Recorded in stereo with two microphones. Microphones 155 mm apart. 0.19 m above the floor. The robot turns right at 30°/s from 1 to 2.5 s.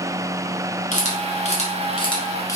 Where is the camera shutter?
55° left (ahead or behind), 1.3 m; by 2.6 s 25° left (ahead or behind), 1.3 m.